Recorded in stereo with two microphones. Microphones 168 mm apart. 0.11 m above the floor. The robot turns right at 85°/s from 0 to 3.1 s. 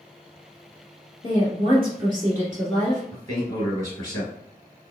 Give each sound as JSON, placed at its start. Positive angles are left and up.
{"t": 1.2, "sound": "a woman speaking", "azimuth_deg": -120, "distance_m": 1.9}
{"t": 3.1, "sound": "a man speaking", "side_deg": 25, "distance_m": 2.0}